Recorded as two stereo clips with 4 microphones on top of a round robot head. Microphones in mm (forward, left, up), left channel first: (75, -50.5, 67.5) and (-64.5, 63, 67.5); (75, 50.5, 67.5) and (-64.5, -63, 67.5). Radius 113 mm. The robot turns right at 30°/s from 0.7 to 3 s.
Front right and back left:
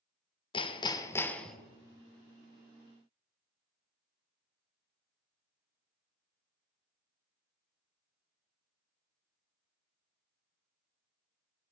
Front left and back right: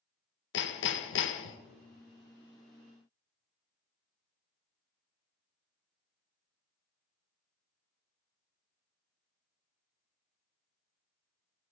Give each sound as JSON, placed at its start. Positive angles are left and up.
{"t": 0.5, "sound": "hammering", "azimuth_deg": 25, "distance_m": 0.6}